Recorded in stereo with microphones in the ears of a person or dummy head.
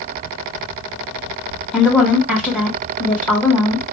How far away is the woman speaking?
About 1.8 m.